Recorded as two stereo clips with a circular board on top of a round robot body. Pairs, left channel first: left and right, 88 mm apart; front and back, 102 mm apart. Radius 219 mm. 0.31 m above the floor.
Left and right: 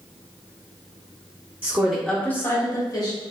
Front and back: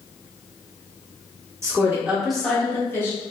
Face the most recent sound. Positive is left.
turn(degrees=60)